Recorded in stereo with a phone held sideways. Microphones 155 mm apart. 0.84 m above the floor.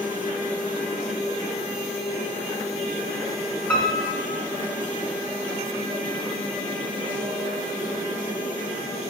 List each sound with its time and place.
3.7 s a piano: 15° left (ahead or behind), 1.4 m